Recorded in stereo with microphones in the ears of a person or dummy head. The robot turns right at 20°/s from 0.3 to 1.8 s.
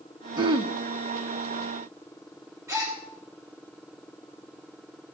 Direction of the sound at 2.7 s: 20° right (ahead or behind).